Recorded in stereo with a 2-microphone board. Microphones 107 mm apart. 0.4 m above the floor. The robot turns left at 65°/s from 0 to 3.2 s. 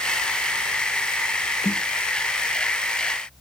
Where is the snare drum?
20° left (ahead or behind), 0.9 m.